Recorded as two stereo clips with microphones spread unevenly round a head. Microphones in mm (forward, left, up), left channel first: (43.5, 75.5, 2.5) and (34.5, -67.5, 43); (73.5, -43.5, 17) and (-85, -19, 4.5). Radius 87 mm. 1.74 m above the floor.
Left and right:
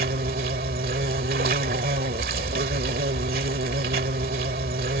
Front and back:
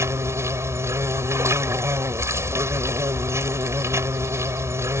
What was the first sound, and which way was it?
An insect, 115° right.